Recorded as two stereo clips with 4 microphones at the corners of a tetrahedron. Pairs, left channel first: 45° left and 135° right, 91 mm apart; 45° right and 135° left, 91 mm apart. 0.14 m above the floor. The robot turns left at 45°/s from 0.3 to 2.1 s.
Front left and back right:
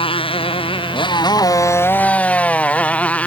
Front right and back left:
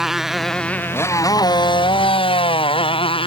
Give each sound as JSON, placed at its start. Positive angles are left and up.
{"t": 0.0, "sound": "a motorcycle", "azimuth_deg": 50}